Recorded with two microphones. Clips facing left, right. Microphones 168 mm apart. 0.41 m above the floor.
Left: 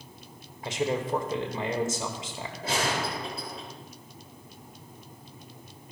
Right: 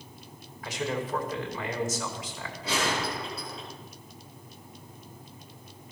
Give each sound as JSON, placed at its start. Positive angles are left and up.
{"t": 0.6, "sound": "a man speaking", "side_deg": 25, "distance_m": 1.6}
{"t": 2.6, "sound": "a gunshot", "side_deg": 55, "distance_m": 5.5}